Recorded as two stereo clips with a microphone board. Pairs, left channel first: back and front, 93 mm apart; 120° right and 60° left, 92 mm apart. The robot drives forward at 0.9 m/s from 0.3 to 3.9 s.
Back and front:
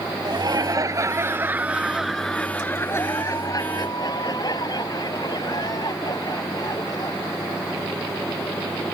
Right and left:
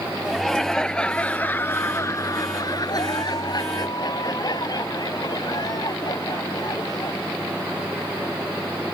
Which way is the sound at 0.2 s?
30° right.